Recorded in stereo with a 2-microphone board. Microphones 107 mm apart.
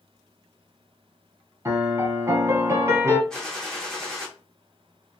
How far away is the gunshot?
About 1.0 m.